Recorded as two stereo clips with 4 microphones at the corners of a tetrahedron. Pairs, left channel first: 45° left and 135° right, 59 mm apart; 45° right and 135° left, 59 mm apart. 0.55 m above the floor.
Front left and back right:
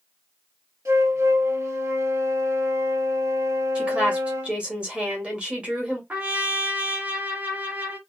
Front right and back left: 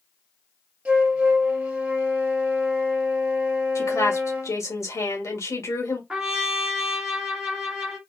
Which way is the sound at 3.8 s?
65° right.